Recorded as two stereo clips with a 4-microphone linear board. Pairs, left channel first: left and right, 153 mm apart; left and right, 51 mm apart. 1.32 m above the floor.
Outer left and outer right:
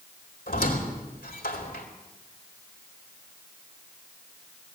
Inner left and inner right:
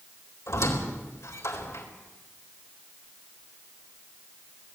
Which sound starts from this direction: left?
A squeak, at 0.5 s.